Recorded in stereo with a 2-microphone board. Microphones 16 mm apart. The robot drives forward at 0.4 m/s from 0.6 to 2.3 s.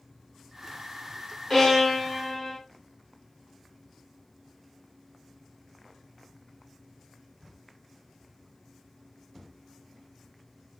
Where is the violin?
30° left (ahead or behind), 1.7 m.